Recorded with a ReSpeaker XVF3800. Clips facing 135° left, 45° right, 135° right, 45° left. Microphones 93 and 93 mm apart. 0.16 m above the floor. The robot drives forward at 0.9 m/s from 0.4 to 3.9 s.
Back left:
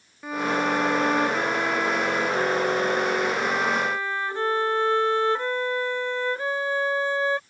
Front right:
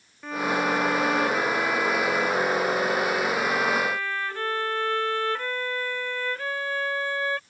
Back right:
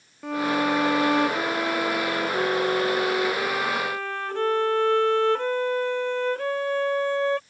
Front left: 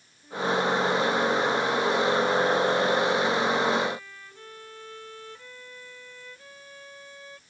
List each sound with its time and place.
0.2 s a violin: 145° right; by 7.4 s 155° right